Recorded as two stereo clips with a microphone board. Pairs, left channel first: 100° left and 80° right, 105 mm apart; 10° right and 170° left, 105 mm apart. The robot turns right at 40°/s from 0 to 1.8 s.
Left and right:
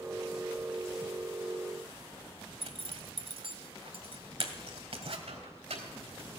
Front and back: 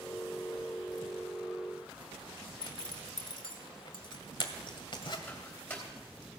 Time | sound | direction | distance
2.6 | a zipper | 55° right | 1.7 m
5.3 | a microwave | 85° right | 3.5 m